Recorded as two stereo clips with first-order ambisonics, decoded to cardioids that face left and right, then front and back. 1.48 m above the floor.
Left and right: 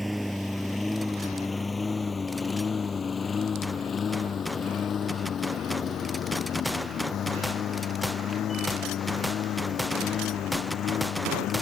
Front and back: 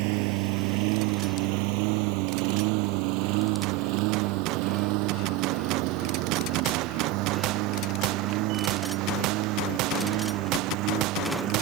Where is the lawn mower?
Straight behind; by 11.6 s 145° left.